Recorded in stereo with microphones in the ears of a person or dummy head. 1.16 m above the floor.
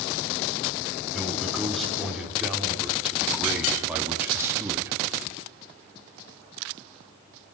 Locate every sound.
1.1 s a man speaking: centre (ahead or behind), 4.5 m; by 4.9 s 15° right (ahead or behind), 2 m